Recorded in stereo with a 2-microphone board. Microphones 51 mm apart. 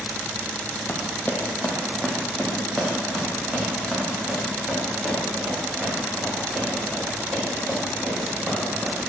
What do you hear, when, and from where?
0.9 s running footsteps: 50° left (ahead or behind), 1.0 m; by 8.9 s 30° right (ahead or behind), 7 m